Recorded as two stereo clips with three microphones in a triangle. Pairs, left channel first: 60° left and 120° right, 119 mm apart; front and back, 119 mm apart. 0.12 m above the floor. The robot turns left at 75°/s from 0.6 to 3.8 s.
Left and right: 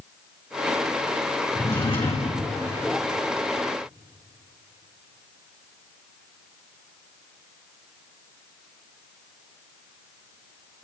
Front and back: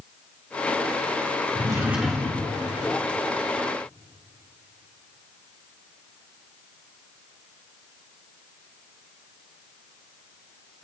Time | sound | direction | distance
1.6 | a drawer | 130° left | 2.5 m